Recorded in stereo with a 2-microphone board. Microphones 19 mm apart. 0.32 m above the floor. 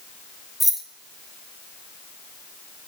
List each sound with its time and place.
0.6 s keys jangling: 10° right (ahead or behind), 0.6 m